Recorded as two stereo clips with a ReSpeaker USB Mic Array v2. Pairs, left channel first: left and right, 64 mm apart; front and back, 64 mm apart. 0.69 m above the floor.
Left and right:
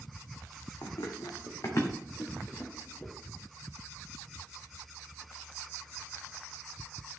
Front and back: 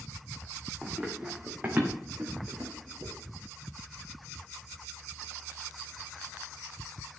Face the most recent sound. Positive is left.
turn(degrees=155)